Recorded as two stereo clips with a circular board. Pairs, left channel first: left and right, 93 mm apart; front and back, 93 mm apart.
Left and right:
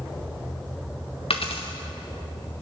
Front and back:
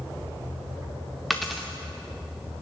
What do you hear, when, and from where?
1.3 s a dropped coin: 90° left, 1.5 m